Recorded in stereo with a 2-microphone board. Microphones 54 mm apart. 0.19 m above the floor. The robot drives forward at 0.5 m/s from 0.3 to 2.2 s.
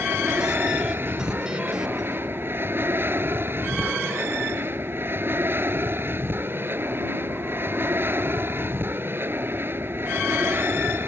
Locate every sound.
0.0 s an aircraft: 45° right (ahead or behind)